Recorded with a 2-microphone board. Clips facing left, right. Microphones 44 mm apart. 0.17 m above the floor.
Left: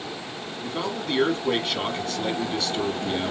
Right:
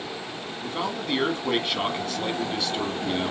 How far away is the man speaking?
About 1.4 m.